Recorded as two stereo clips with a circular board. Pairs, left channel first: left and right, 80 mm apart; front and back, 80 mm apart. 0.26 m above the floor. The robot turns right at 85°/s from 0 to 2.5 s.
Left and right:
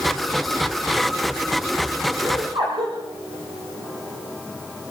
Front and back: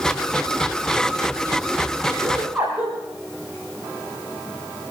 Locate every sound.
2.2 s laughter: 130° right, 6.5 m; by 3.0 s 110° right, 6.5 m